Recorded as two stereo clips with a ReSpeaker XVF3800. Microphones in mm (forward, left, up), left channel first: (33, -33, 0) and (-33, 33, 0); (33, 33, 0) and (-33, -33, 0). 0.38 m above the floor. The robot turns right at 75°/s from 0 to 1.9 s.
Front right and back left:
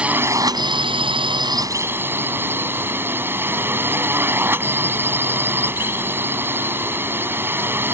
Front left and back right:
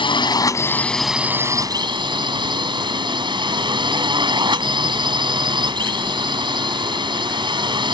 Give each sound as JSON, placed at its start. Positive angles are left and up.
{"t": 0.0, "sound": "a drone", "azimuth_deg": 55}